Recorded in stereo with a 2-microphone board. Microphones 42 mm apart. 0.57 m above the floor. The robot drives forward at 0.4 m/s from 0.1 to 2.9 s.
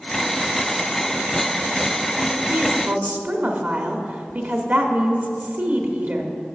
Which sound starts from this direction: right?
A woman speaking, at 2.5 s.